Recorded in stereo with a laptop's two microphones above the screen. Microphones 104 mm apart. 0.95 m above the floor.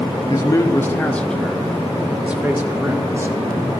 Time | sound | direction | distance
0.3 | a man speaking | 35° left (ahead or behind) | 1.6 m